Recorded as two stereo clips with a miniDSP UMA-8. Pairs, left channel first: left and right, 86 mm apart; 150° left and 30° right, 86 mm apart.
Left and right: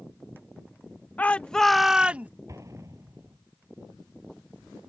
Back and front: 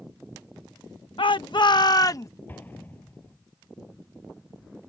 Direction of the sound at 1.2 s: 160° left.